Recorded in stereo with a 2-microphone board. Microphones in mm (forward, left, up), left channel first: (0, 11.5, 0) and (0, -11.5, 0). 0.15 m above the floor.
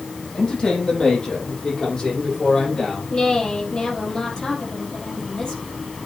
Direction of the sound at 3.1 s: 35° left (ahead or behind).